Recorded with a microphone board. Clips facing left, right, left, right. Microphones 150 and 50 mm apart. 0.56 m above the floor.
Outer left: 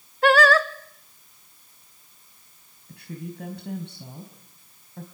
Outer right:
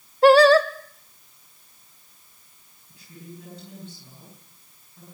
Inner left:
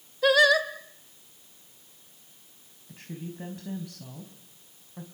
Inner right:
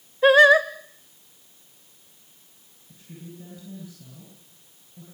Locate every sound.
0.2 s singing: 30° right (ahead or behind), 1.4 m
2.9 s a woman speaking: 70° left (ahead or behind), 4 m